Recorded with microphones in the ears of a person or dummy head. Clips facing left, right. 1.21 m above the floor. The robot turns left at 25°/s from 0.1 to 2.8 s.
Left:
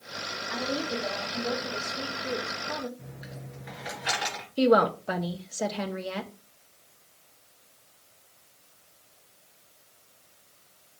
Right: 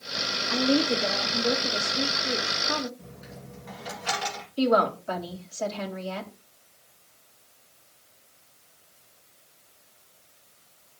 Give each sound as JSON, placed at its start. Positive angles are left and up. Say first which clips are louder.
{"t": 0.5, "sound": "a woman speaking", "louder": "right 8 dB", "azimuth_deg": -115, "distance_m": 1.8}
{"t": 3.0, "sound": "a dropped coin", "louder": "even", "side_deg": 20, "distance_m": 2.5}
{"t": 4.6, "sound": "a woman speaking", "louder": "left 2 dB", "side_deg": 30, "distance_m": 1.8}